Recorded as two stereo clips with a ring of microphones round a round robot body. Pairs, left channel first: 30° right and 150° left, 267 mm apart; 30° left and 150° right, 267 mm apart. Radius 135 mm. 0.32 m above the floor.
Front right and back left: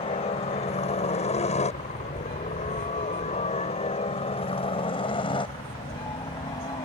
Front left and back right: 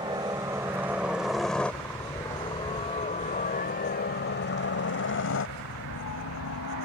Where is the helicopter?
85° right; by 6.9 s 40° left.